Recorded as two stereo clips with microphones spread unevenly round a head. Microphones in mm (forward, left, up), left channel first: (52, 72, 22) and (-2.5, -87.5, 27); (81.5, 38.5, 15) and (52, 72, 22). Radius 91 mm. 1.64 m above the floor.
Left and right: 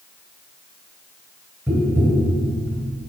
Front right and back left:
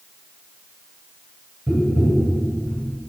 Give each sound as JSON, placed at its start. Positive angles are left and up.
{"t": 1.7, "sound": "tapping", "azimuth_deg": 175, "distance_m": 2.5}